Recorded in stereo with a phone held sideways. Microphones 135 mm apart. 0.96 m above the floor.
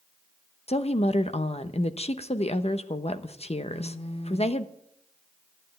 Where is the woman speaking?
55° left (ahead or behind), 1.0 m.